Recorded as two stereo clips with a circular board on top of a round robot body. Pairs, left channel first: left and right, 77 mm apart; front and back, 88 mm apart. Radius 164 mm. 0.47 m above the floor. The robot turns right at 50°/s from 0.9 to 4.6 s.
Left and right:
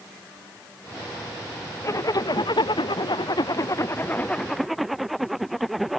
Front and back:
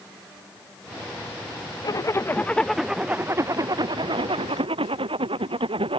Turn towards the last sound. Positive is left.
turn(degrees=180)